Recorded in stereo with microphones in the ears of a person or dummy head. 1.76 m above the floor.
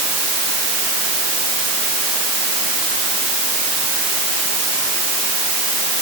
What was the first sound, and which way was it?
Only background noise.